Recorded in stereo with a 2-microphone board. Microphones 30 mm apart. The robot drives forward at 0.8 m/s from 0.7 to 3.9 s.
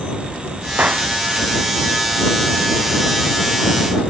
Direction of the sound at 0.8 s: 55° right (ahead or behind).